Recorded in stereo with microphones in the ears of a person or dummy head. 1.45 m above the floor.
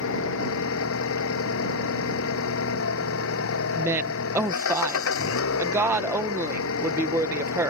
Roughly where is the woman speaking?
Centre.